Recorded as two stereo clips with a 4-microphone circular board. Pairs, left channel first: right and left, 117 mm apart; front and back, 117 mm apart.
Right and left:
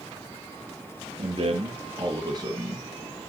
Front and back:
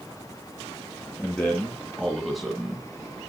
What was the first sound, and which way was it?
A man speaking, 80° left.